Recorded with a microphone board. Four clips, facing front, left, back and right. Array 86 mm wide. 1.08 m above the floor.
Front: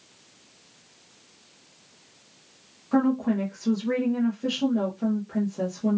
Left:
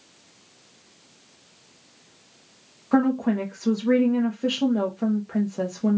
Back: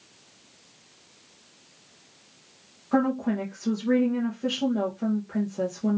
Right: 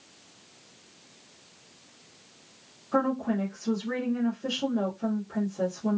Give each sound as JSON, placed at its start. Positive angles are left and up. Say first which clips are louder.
{"t": 2.9, "sound": "a woman speaking", "louder": "left 5 dB, front 1 dB", "azimuth_deg": 95, "distance_m": 0.8}